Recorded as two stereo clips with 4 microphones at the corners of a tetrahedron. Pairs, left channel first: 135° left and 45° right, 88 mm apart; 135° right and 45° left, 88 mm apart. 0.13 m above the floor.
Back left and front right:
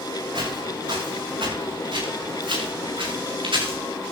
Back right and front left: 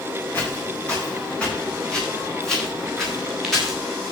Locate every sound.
0.3 s footsteps: 65° right, 8 m; by 3.8 s 45° right, 8 m